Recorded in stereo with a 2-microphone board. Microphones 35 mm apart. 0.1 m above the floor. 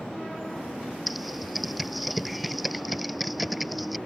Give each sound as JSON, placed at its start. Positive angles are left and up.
{"t": 1.1, "sound": "typing on a keyboard", "side_deg": -5}